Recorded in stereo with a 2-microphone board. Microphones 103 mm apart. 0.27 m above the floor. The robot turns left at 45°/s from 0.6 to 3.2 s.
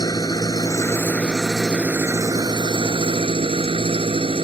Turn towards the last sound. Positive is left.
turn(degrees=-75)